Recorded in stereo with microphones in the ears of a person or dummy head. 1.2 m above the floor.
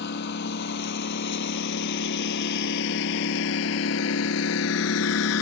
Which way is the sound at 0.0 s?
60° left (ahead or behind).